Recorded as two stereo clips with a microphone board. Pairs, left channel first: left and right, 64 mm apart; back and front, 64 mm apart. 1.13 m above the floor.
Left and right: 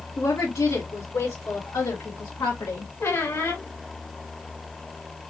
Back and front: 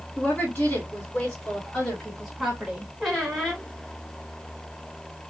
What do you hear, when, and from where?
0.2 s a woman speaking: 115° left, 3 m; by 2.9 s 80° left, 1.5 m
3.0 s a squeak: 95° left, 1.7 m